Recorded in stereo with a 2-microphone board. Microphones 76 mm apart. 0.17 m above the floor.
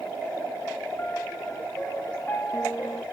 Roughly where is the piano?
Left.